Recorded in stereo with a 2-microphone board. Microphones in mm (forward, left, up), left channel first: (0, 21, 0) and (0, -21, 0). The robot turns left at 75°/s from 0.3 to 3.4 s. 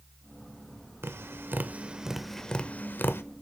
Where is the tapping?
90° right, 0.6 m; by 3.2 s 75° left (ahead or behind), 0.6 m.